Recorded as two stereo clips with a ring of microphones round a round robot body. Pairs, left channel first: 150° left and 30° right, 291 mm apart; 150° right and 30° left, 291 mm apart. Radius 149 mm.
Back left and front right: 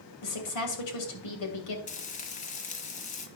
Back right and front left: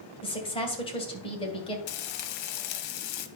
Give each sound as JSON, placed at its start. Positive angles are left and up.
{"t": 0.2, "sound": "a woman speaking", "azimuth_deg": 140, "distance_m": 2.5}
{"t": 1.9, "sound": "frying", "azimuth_deg": -145, "distance_m": 0.8}